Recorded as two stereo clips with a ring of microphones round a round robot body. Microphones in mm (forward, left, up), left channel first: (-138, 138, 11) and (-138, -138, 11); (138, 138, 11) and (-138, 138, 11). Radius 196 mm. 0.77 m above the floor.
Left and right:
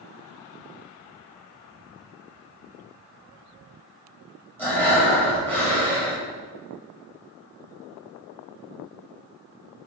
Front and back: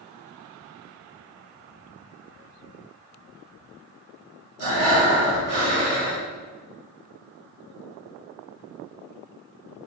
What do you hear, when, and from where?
4.6 s breathing: 175° left, 1.9 m